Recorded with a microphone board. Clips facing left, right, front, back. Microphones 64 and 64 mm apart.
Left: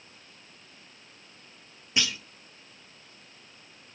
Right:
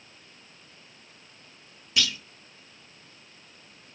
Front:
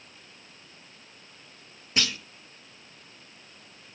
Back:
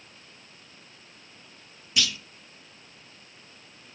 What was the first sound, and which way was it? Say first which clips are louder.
A clunk: right 1 dB, even; 35° left.